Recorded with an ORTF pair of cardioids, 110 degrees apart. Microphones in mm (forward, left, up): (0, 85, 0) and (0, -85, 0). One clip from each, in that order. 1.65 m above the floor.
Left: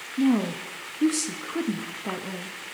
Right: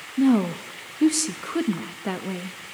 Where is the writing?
No writing in this recording.